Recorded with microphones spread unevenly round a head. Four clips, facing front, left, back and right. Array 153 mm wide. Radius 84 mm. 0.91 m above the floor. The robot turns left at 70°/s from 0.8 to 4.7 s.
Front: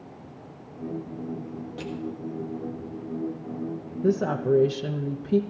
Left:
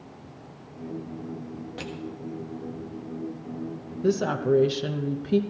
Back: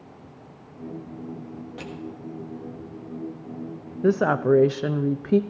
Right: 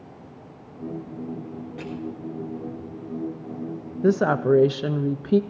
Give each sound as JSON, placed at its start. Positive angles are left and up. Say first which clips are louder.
{"t": 1.8, "sound": "crushing", "louder": "right 2 dB, front 4 dB", "azimuth_deg": 20, "distance_m": 1.7}
{"t": 4.0, "sound": "a woman speaking", "louder": "right 4 dB, back 4 dB", "azimuth_deg": -85, "distance_m": 0.7}